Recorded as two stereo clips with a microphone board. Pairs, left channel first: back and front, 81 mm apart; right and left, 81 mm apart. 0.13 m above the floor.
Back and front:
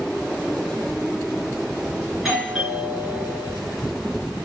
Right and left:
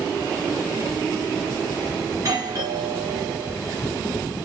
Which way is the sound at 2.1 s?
85° left.